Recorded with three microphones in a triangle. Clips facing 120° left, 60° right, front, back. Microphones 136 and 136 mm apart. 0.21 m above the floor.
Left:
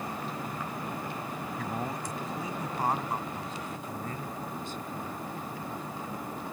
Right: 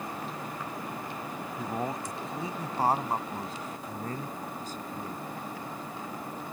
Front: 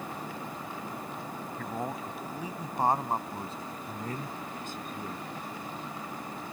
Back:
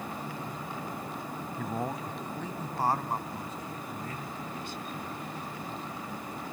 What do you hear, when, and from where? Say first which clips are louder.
1.6 s a man speaking: right 3 dB, back 2 dB; 105° right; by 5.3 s 20° right